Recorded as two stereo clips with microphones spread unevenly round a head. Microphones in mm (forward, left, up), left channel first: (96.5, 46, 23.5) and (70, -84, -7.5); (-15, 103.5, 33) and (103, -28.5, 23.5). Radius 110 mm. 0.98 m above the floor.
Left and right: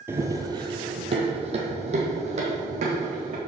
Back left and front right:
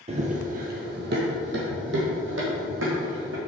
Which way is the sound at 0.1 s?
20° right.